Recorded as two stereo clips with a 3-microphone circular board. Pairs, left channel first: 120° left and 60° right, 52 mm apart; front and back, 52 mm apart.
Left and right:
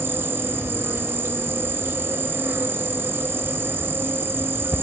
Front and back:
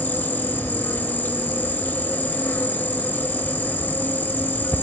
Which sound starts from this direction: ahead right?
An insect, at 0.0 s.